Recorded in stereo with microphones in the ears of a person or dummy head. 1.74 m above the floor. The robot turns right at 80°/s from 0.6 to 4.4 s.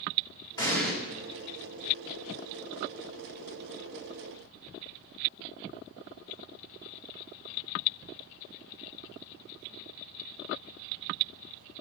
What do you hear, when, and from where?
0.6 s an explosion: 25° left (ahead or behind), 3 m; by 0.9 s centre (ahead or behind), 3 m